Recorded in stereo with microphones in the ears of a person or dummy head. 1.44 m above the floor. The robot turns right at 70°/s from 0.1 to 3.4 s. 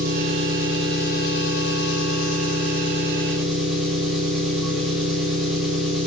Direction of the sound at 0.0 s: 45° right.